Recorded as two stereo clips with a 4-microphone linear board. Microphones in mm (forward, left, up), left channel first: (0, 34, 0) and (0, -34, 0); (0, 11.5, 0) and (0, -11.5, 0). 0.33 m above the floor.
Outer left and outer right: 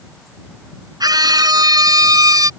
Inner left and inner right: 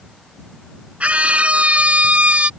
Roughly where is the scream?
Right.